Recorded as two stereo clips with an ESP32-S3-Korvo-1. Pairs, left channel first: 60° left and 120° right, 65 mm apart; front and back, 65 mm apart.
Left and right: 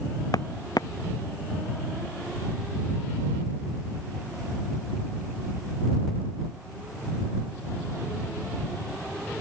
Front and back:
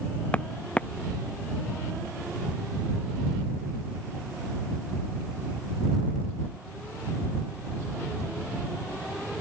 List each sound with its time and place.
0.3 s footsteps: 70° left